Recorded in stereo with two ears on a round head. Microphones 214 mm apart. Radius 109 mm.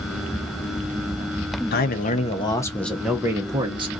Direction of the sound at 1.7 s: 40° left (ahead or behind).